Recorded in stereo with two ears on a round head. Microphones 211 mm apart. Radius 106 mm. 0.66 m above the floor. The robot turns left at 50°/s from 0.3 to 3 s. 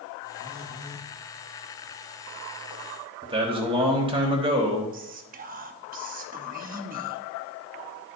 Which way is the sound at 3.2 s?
25° right (ahead or behind).